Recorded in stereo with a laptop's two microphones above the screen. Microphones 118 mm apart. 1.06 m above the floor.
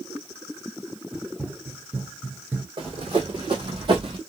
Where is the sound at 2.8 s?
50° right (ahead or behind), 1.9 m; by 4.2 s 45° right (ahead or behind), 1.4 m.